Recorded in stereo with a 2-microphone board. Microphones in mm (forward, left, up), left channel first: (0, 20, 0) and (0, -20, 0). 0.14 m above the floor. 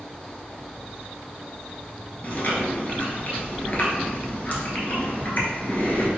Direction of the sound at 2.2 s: 45° left (ahead or behind).